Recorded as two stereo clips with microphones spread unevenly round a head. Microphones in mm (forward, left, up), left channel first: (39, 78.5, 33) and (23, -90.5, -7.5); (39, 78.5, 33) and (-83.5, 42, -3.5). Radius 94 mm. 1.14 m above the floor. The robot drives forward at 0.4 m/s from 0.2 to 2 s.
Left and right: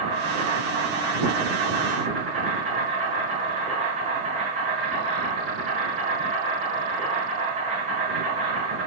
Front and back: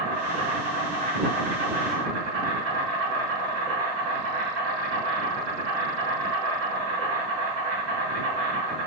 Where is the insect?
140° right, 2 m; by 8.9 s 150° right, 2.5 m.